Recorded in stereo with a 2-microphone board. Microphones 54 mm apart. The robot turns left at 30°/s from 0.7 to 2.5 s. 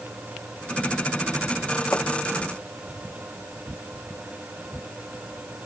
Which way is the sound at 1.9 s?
35° left (ahead or behind).